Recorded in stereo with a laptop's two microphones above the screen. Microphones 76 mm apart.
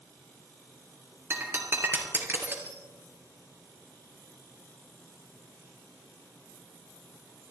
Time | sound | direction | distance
1.3 | breaking glass | 35° right (ahead or behind) | 2.5 m